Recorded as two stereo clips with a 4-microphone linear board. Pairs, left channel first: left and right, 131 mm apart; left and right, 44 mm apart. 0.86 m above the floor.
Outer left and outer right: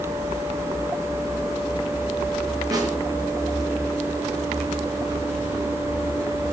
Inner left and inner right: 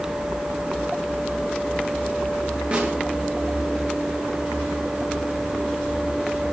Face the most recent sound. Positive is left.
turn(degrees=-25)  # may be behind; listen again after turning